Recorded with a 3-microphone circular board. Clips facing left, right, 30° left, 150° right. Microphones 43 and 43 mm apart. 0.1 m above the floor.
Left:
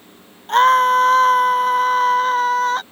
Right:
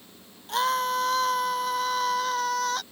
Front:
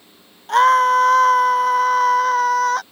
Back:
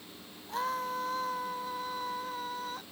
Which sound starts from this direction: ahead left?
A scream, at 0.5 s.